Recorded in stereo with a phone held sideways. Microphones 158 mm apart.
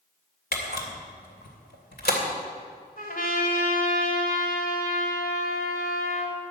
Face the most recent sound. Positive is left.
turn(degrees=60)  # may be behind; listen again after turning